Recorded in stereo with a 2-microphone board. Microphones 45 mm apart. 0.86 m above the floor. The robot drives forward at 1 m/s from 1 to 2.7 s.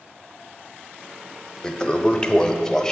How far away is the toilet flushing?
About 0.8 m.